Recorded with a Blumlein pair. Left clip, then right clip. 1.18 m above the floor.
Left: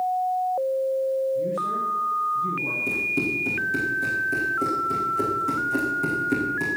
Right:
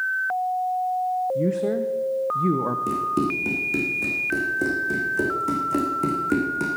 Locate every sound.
1.4 s a man speaking: 55° right, 0.9 m
2.9 s running footsteps: 15° right, 4.5 m